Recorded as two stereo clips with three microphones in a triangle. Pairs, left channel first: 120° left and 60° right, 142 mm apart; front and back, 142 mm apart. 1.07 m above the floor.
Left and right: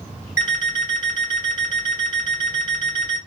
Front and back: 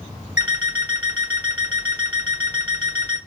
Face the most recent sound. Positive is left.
turn(degrees=100)